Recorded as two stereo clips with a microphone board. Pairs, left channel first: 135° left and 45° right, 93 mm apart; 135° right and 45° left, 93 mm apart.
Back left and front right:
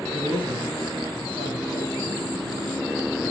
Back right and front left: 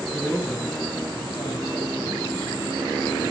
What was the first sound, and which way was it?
A man speaking, 160° left.